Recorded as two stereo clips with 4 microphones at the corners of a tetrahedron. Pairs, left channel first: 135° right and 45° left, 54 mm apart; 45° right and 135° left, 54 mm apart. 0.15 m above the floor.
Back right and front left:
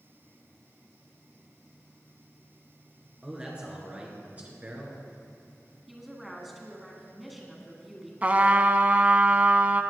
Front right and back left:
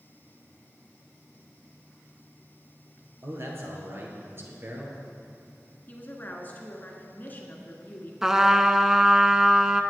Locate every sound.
3.2 s a man speaking: 115° left, 3 m; by 5.0 s 90° left, 3 m
5.9 s a woman speaking: 45° right, 1.7 m
8.2 s a trumpet: 65° left, 0.6 m